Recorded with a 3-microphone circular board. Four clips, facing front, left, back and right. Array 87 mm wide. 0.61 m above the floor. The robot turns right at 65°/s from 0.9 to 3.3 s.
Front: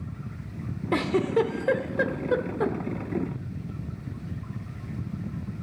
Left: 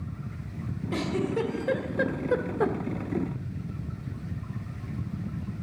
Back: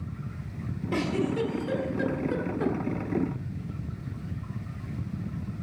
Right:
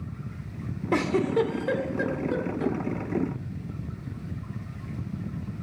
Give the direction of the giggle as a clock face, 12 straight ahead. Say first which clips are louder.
Right 5 dB, front 4 dB; 2 o'clock.